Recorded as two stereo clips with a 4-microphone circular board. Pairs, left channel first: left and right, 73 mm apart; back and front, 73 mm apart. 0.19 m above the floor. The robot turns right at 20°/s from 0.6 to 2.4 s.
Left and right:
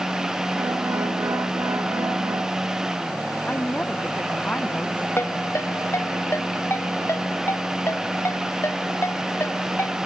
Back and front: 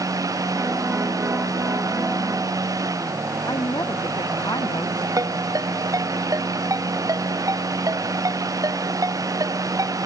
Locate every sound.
3.5 s a woman speaking: 160° left
5.2 s a ringtone: 35° left